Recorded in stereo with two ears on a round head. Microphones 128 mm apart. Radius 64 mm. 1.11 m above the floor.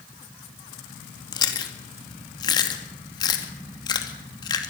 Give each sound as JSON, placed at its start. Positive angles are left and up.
{"t": 1.3, "sound": "chewing", "side_deg": 30, "distance_m": 2.5}